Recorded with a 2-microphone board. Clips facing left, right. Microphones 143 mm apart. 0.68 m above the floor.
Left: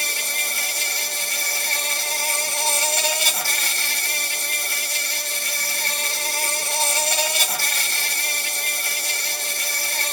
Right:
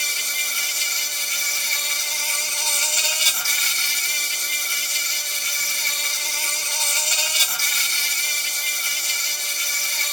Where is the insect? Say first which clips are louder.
Left 5 dB; 55° left (ahead or behind).